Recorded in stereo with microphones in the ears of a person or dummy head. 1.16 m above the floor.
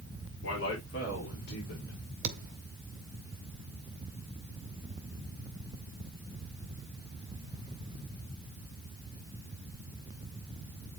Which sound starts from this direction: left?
A man speaking, at 0.4 s.